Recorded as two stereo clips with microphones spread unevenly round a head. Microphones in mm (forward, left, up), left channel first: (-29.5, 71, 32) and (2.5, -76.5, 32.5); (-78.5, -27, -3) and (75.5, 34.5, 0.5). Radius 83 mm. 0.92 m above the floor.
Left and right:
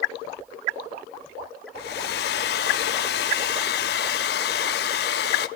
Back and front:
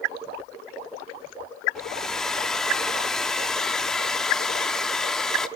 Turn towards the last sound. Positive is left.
turn(degrees=115)